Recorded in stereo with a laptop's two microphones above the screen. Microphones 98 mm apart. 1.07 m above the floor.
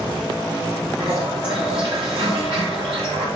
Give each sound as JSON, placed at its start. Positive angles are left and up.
{"t": 1.0, "sound": "a toilet flushing", "side_deg": -70, "distance_m": 3.5}